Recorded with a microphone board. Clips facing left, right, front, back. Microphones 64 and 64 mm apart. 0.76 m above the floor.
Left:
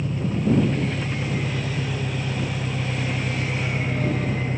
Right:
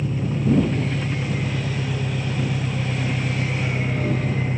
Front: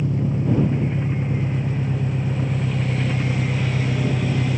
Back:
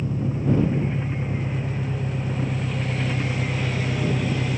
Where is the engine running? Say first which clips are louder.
Right 1 dB, front 3 dB; 10° right.